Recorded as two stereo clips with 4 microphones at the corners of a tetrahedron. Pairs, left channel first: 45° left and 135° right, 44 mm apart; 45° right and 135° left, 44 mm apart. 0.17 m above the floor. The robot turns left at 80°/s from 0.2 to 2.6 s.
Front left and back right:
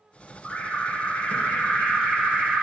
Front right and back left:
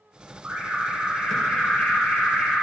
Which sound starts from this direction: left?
An alarm, at 0.4 s.